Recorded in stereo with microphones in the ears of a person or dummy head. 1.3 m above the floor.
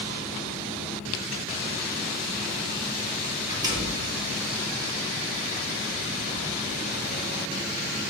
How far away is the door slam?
About 1.9 m.